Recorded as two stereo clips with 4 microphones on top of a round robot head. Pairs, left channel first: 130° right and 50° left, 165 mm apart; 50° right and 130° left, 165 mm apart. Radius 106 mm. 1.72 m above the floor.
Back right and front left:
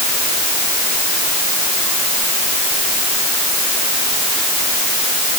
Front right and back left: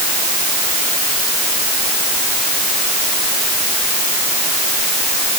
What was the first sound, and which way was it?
Only background noise.